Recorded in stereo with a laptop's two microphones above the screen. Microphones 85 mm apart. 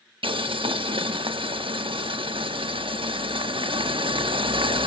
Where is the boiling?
85° right, 1.0 m.